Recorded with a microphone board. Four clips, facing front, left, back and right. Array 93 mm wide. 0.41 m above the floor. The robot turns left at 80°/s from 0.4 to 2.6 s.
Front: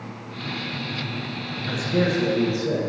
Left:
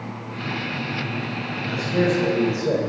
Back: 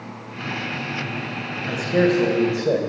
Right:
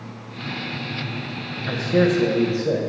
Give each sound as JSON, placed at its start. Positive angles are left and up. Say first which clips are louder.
{"t": 1.7, "sound": "a man speaking", "louder": "right 3 dB, back 4 dB", "azimuth_deg": -115, "distance_m": 1.9}